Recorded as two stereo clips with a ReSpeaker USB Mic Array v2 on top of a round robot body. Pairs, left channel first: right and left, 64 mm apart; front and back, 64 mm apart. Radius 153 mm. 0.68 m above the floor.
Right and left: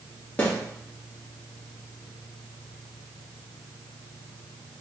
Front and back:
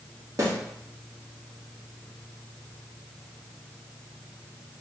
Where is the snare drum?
155° right, 1.3 m.